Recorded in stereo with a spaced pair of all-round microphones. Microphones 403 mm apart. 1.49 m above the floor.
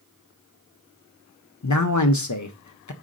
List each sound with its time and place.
1.6 s a man speaking: 50° left (ahead or behind), 0.6 m